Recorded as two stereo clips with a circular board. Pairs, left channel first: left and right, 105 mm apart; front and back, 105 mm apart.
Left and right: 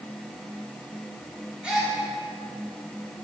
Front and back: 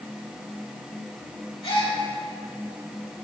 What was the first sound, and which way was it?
A gasp, 10° right.